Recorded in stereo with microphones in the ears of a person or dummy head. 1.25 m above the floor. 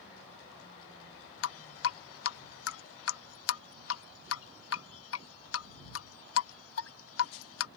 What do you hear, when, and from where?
1.4 s dripping: 80° left